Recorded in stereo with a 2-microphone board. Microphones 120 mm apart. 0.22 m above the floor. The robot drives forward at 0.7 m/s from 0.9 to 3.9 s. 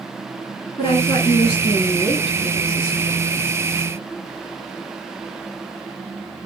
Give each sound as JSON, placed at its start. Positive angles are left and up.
{"t": 0.8, "sound": "a woman speaking", "side_deg": 45, "distance_m": 3.5}